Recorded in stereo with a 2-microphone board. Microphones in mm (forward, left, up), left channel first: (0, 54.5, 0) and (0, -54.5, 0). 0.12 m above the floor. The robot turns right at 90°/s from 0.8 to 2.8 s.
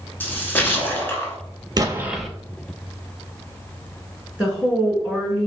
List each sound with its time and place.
0.2 s a splash: 20° left (ahead or behind), 0.9 m; by 1.4 s 15° left (ahead or behind), 0.9 m
1.8 s an explosion: 40° right, 0.5 m; by 2.3 s 5° left, 0.5 m
4.4 s a woman speaking: 10° right (ahead or behind), 1.1 m